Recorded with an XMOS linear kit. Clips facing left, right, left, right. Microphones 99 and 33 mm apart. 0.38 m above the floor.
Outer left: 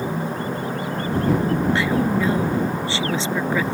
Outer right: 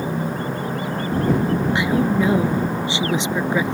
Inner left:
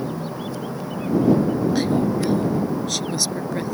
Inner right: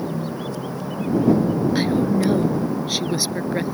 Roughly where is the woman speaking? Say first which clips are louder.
Outer right 1 dB, inner right 1 dB; centre.